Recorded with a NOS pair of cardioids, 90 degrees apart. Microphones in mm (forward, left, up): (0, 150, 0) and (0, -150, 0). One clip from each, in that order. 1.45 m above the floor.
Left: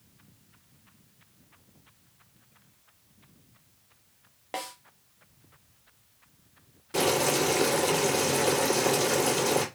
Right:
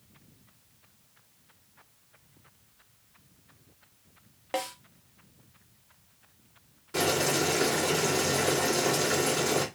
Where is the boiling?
25° left, 1.8 m.